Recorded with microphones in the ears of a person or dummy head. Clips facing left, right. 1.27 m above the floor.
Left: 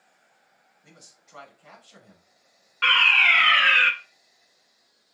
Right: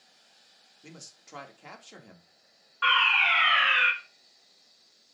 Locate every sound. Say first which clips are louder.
0.8 s a man speaking: right 6 dB; 75° right (ahead or behind), 2 m
2.8 s a fire alarm: left 1 dB; 35° left (ahead or behind), 1.0 m